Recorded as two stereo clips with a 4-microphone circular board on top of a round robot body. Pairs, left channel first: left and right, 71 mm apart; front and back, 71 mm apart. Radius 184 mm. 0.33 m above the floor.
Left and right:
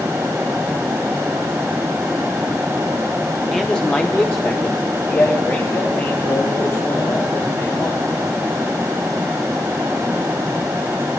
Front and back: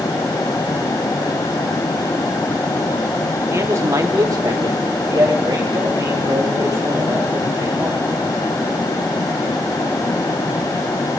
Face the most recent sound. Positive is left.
turn(degrees=130)